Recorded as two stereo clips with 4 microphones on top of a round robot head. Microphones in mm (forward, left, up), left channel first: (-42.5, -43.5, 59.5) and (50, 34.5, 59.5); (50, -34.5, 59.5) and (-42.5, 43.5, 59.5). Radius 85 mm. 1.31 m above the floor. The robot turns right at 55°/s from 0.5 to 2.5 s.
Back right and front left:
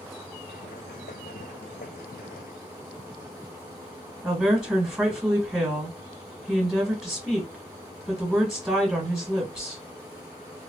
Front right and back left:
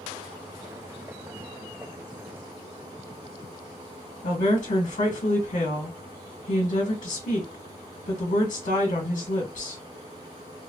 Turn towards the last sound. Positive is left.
turn(degrees=-40)